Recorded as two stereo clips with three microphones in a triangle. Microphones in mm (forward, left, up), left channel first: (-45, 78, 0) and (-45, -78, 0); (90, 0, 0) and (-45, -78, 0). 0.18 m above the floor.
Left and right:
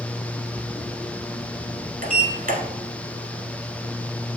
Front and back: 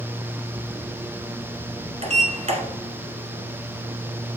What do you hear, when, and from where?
2.0 s a sliding door: 110° right, 1.0 m